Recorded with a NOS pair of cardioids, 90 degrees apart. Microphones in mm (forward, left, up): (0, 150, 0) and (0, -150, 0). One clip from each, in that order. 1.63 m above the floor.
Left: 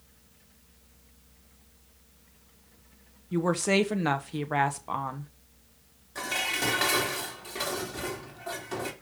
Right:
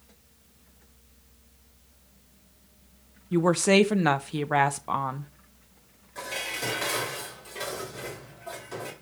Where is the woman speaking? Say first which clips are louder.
Right 5 dB; 20° right, 1.0 m.